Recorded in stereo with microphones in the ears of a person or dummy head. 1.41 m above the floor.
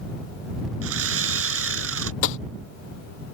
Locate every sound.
0.8 s sawing: 85° right
2.2 s tapping: 70° left (ahead or behind)